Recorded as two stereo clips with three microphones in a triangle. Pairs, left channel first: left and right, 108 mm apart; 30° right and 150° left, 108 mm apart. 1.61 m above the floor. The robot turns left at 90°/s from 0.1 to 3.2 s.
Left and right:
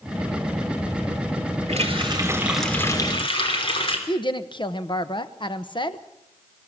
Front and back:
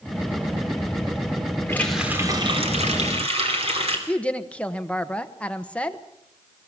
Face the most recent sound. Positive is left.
turn(degrees=50)